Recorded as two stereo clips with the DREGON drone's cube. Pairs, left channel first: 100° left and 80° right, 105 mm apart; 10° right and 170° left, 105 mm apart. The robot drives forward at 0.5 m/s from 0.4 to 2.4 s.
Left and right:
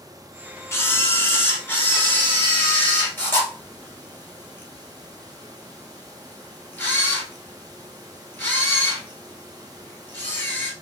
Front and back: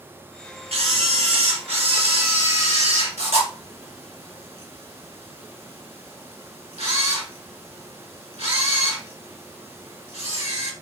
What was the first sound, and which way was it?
A camera shutter, 160° left.